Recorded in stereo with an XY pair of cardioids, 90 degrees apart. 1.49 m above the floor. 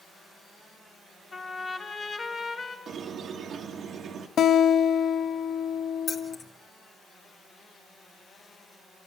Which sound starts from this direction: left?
A guitar, at 4.4 s.